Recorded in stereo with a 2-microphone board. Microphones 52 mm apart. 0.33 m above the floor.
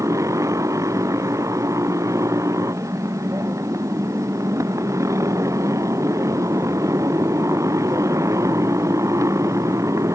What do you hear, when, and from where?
0.0 s a motorcycle: 85° right; by 10.2 s 80° right